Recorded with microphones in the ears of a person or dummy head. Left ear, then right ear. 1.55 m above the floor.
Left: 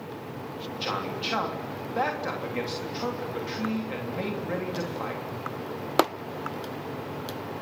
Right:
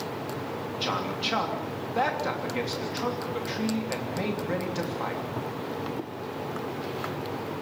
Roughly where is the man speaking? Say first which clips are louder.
Right 1 dB; centre.